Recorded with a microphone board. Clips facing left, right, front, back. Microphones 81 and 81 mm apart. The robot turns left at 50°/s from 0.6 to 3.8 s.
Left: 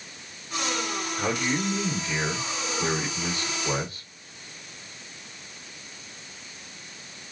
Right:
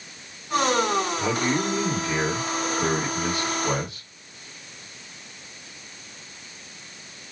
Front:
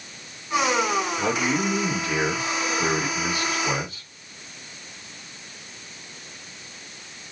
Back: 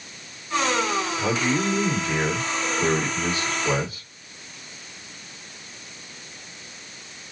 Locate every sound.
1.2 s a man speaking: 35° left, 1.9 m; by 4.1 s 100° right, 1.9 m